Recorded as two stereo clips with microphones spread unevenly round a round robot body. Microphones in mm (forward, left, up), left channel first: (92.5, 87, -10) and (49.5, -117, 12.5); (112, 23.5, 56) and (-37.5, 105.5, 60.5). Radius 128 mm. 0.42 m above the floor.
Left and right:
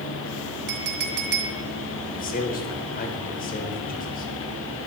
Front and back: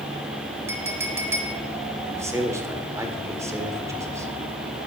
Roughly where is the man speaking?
Left.